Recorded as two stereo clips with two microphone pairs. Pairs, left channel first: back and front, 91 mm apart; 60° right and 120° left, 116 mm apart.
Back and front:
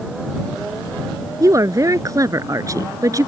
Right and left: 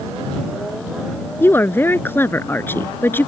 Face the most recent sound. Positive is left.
turn(degrees=-5)